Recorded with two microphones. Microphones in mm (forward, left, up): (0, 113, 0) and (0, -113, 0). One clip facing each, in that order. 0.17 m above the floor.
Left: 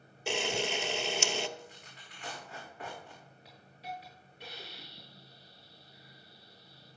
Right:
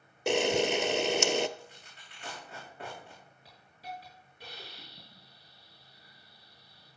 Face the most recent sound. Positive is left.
turn(degrees=0)  # may be behind; listen again after turning